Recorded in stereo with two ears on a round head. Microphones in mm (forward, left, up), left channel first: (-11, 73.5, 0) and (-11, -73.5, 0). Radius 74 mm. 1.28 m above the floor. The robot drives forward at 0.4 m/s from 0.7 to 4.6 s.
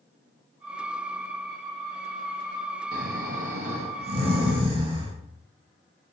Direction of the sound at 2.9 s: 60° right (ahead or behind).